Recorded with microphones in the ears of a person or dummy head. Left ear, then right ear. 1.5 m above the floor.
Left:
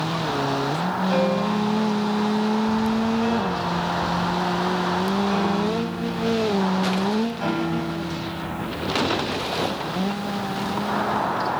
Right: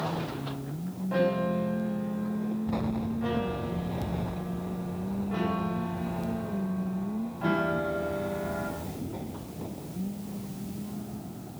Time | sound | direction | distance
1.1 | a piano | 80° left | 8.5 m